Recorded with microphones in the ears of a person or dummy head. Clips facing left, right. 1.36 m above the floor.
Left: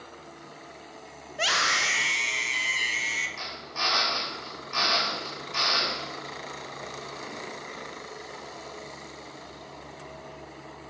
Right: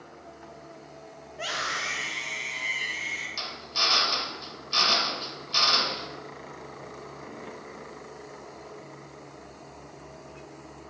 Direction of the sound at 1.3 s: 80° left.